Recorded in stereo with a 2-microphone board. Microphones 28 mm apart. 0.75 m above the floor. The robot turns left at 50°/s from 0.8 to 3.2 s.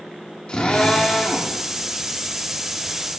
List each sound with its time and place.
0.5 s a drill: 45° left, 2 m; by 1.5 s 5° left, 2 m